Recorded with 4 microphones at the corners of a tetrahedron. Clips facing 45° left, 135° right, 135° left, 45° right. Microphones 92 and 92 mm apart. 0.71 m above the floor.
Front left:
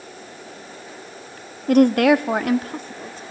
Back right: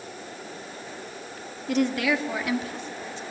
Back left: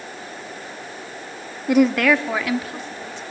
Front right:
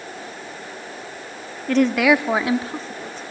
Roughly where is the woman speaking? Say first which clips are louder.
Front left 10 dB, even; ahead left.